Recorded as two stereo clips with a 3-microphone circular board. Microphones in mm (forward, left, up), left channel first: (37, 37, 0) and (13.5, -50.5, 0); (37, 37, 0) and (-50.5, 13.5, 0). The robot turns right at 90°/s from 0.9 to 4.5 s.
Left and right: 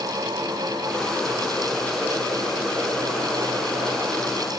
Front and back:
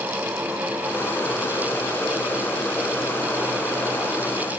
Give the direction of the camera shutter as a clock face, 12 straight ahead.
I don't hear a camera shutter.